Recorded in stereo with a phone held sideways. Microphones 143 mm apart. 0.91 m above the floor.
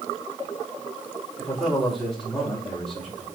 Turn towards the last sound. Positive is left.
turn(degrees=0)  # may be behind; listen again after turning